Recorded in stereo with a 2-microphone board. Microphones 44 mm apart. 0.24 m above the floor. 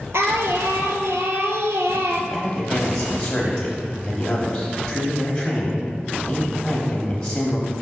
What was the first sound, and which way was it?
Singing, 85° right.